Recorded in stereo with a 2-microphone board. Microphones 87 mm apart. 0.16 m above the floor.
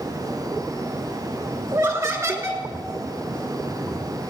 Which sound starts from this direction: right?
Laughter, at 1.7 s.